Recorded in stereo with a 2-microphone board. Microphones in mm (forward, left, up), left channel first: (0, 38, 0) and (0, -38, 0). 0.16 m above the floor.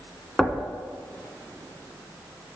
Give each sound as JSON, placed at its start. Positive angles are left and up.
{"t": 0.4, "sound": "knocking", "side_deg": 5, "distance_m": 0.8}